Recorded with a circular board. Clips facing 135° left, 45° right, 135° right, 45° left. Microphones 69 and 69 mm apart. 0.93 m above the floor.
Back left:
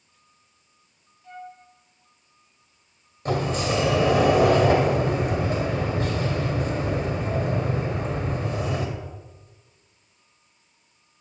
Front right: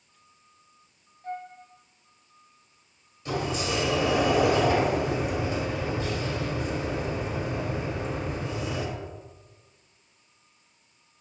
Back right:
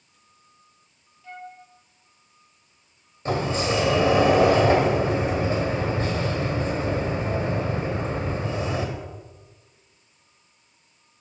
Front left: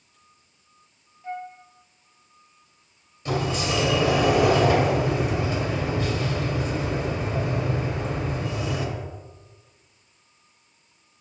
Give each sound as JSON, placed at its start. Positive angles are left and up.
{"t": 1.2, "sound": "a flute", "azimuth_deg": -15, "distance_m": 1.0}
{"t": 3.2, "sound": "a sliding door", "azimuth_deg": 170, "distance_m": 1.9}